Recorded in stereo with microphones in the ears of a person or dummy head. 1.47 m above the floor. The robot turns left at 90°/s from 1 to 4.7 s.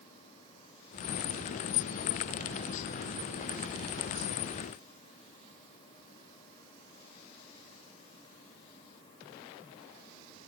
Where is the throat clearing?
I don't hear throat clearing.